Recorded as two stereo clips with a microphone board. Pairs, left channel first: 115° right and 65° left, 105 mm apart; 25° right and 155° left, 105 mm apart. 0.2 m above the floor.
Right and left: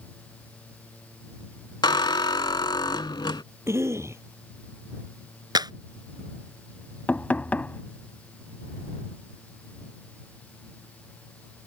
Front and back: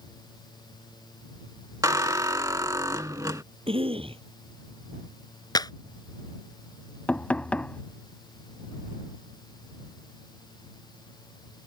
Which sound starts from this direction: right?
Knocking, at 7.1 s.